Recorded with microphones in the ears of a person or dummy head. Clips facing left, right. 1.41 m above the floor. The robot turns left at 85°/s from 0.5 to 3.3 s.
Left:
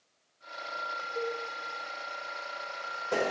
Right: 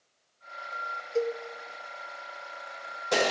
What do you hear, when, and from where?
1.1 s a cowbell: 75° right (ahead or behind), 1.3 m; by 1.4 s 65° right (ahead or behind), 1.3 m